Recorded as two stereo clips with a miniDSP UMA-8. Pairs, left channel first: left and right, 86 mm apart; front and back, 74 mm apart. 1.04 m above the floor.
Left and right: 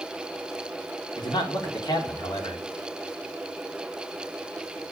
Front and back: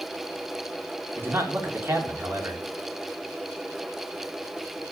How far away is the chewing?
No chewing in this recording.